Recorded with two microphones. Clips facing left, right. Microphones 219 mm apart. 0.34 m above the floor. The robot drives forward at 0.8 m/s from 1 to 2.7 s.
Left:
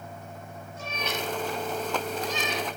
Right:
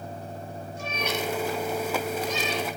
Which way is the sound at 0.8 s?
15° right (ahead or behind).